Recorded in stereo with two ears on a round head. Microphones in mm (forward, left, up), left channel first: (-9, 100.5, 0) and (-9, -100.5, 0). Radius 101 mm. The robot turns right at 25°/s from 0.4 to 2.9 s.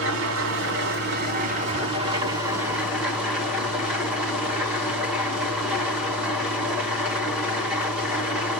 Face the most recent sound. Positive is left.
turn(degrees=-5)